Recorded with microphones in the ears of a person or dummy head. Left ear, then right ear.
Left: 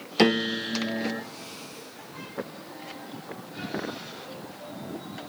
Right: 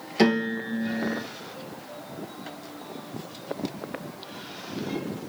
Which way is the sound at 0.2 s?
20° left (ahead or behind).